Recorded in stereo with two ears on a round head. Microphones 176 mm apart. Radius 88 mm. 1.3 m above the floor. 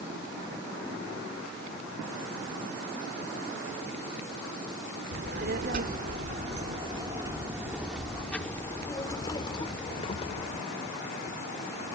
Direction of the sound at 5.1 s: 60° right (ahead or behind).